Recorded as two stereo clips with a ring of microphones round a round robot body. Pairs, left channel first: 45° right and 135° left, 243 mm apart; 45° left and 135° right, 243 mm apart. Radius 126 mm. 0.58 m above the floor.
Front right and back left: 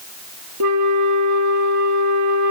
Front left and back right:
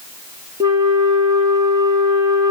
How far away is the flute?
About 1.1 m.